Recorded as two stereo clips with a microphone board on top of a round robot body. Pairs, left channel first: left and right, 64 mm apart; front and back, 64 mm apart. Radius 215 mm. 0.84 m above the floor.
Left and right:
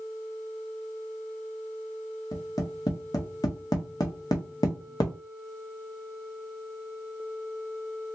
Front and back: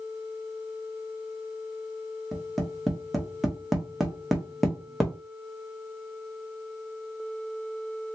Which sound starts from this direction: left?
Tapping, at 2.3 s.